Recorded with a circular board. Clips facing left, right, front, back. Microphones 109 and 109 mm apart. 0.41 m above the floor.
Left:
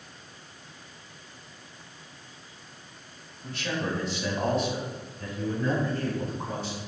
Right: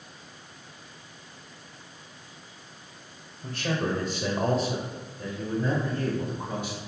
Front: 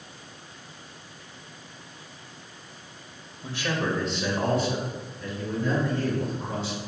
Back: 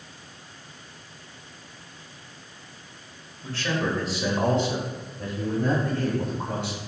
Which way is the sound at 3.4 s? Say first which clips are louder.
Right 2 dB, back 1 dB; 60° right.